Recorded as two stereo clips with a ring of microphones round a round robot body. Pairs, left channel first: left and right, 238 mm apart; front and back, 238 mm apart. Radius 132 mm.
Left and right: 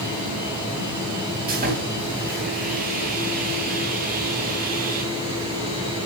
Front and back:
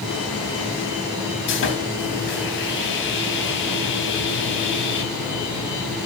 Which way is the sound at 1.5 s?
35° right.